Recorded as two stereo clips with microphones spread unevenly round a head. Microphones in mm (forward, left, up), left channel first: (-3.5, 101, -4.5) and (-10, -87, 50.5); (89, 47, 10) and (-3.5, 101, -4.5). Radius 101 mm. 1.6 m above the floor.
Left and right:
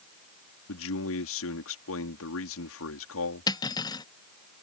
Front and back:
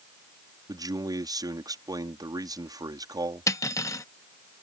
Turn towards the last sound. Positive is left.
turn(degrees=5)